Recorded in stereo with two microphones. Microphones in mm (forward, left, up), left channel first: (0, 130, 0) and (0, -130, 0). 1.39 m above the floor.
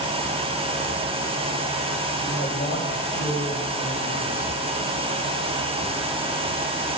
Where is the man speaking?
45° left (ahead or behind), 6 m; by 4.5 s 35° left (ahead or behind), 9 m.